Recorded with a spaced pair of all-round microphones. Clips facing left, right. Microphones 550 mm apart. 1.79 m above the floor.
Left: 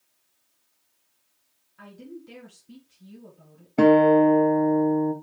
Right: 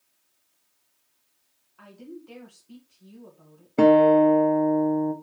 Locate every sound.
1.8 s a woman speaking: 40° left (ahead or behind), 2.0 m
3.8 s a guitar: 15° left (ahead or behind), 1.2 m